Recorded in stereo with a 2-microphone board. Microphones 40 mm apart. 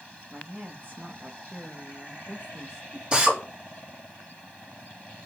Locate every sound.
0.3 s a woman speaking: 45° right (ahead or behind), 2.5 m; by 3.0 s 15° right (ahead or behind), 2.5 m
3.1 s a drill: 30° right (ahead or behind), 4 m